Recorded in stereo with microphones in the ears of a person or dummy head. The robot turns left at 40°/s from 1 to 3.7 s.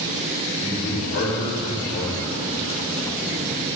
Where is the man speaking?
110° left, 4 m; by 2.4 s 55° left, 4 m.